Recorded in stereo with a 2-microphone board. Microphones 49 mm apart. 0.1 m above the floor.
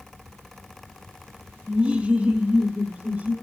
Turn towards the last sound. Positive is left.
turn(degrees=-35)  # may be behind; listen again after turning